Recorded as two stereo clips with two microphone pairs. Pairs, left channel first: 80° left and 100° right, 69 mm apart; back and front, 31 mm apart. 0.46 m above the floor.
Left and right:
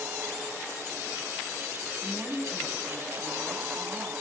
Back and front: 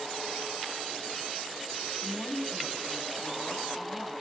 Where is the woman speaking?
175° left, 3 m.